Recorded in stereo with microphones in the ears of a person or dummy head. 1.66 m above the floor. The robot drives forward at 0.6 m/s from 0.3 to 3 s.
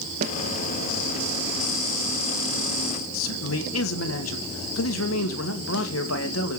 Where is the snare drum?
50° right (ahead or behind), 1.4 m.